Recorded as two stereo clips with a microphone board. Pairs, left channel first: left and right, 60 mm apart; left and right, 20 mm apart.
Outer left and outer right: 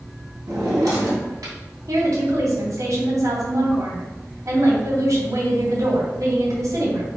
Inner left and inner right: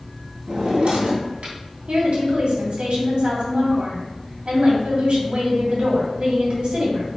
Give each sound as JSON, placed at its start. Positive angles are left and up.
{"t": 0.5, "sound": "a drawer", "side_deg": -80, "distance_m": 3.0}
{"t": 1.9, "sound": "a woman speaking", "side_deg": -70, "distance_m": 3.0}